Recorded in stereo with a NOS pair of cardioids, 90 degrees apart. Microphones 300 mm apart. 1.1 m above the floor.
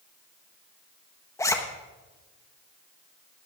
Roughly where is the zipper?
Ahead.